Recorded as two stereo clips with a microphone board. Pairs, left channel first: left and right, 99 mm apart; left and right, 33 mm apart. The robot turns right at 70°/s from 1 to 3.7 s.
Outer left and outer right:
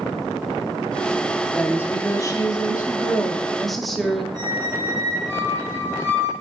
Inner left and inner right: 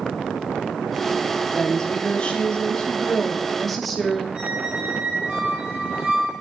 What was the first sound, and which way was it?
A woman speaking, 25° left.